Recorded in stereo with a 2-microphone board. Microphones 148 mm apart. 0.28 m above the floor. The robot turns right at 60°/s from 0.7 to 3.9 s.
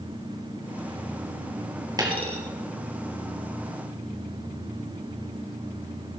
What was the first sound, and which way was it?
A dropped coin, 25° right (ahead or behind).